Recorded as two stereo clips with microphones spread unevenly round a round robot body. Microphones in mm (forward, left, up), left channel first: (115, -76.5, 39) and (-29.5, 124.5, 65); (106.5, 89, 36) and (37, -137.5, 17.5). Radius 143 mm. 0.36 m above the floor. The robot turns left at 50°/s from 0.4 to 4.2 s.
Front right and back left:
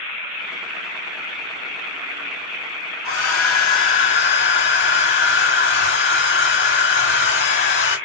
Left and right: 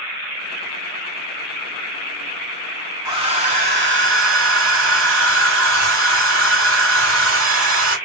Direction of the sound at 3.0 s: 35° right.